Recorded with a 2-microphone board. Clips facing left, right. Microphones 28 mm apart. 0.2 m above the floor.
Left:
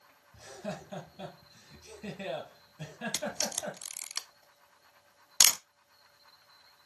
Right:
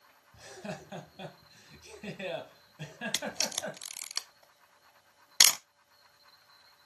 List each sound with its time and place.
0.3 s laughter: 15° right (ahead or behind), 4 m
3.1 s a camera shutter: 25° right (ahead or behind), 0.6 m